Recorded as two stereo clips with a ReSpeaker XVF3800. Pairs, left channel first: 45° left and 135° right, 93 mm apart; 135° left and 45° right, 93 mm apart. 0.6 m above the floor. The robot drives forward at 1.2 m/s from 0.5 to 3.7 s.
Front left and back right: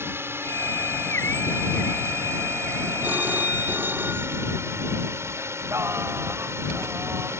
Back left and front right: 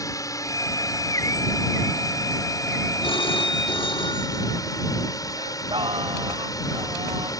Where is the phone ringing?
155° left.